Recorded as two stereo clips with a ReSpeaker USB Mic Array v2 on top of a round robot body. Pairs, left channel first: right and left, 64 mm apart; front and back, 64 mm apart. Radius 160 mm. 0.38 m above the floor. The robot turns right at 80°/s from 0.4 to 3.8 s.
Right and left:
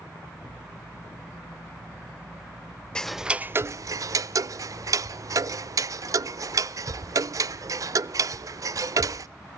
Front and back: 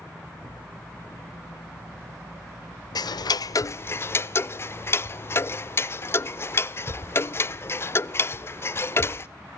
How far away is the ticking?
About 0.5 m.